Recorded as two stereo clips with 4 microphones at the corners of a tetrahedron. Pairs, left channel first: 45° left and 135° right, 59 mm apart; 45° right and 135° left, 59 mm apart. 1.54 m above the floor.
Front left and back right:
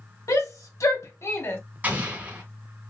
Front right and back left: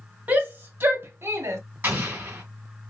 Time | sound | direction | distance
0.3 | a shout | 70° left | 1.4 m
1.8 | an explosion | 175° left | 1.8 m